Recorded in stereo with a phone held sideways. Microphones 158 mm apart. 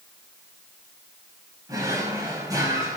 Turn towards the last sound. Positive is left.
turn(degrees=-20)  # may be behind; listen again after turning